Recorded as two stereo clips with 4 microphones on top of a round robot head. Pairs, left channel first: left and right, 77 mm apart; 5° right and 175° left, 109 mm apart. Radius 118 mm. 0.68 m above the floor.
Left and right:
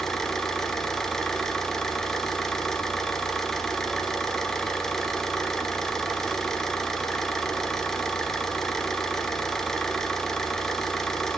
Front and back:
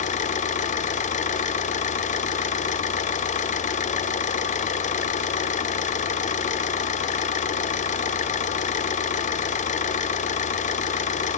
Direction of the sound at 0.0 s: 5° left.